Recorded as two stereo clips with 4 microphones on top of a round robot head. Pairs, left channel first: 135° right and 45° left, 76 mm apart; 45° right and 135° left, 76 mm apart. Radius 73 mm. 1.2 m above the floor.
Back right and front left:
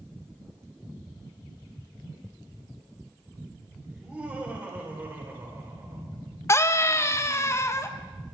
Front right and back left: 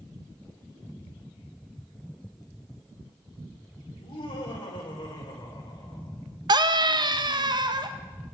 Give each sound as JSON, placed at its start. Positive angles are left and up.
{"t": 3.9, "sound": "laughter", "azimuth_deg": -35, "distance_m": 6.0}
{"t": 6.5, "sound": "a scream", "azimuth_deg": 165, "distance_m": 1.5}